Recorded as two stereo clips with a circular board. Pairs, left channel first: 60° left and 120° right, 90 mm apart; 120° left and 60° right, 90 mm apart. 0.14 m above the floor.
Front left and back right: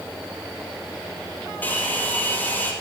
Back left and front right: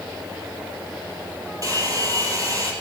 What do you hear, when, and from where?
1.6 s a hair dryer: 10° right, 2 m